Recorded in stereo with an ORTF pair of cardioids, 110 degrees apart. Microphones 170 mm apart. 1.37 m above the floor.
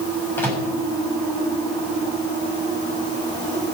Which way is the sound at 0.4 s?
15° left.